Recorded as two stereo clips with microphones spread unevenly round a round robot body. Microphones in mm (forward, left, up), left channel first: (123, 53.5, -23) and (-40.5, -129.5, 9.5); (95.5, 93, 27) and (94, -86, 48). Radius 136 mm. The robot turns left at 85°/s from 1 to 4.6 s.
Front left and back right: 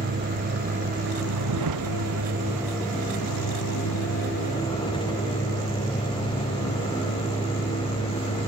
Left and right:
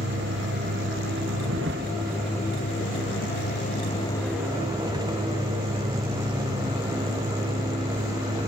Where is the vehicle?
80° right; by 8.5 s 20° right.